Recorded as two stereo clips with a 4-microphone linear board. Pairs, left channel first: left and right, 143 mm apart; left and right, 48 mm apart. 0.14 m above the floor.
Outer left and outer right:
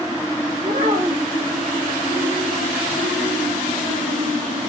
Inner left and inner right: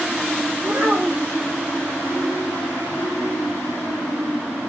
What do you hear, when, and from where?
0.6 s a child speaking: 80° right, 6 m